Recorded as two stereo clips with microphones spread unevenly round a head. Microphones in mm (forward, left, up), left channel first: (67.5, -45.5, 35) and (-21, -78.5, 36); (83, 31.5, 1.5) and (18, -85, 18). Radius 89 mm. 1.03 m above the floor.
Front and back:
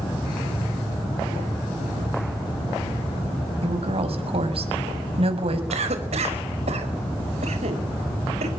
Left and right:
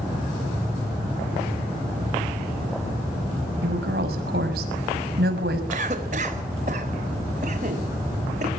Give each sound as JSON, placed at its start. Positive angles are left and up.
{"t": 3.6, "sound": "a woman speaking", "azimuth_deg": -150, "distance_m": 6.0}
{"t": 5.7, "sound": "a cough", "azimuth_deg": -170, "distance_m": 4.5}